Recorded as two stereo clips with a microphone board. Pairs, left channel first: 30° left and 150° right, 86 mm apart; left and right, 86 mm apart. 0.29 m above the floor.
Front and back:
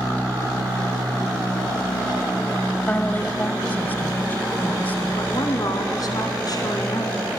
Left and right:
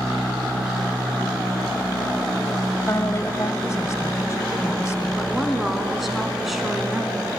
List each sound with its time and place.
2.9 s a woman speaking: 85° left, 1.4 m
5.2 s a woman speaking: 5° right, 2.5 m